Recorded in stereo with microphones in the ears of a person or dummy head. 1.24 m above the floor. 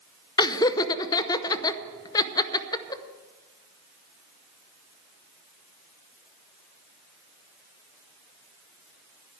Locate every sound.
0.4 s laughter: 20° left (ahead or behind), 0.7 m